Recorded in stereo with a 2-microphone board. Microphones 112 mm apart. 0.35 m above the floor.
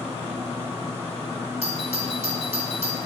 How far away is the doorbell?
About 4 m.